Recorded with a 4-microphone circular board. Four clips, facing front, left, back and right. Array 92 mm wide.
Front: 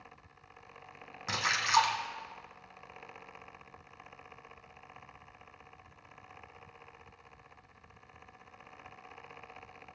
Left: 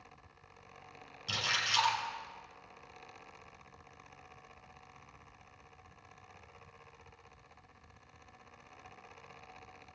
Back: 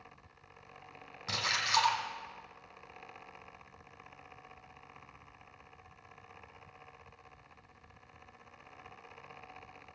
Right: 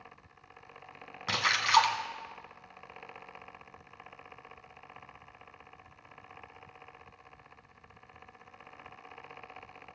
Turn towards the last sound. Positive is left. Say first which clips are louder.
# right 9 dB, front 4 dB
turn(degrees=-75)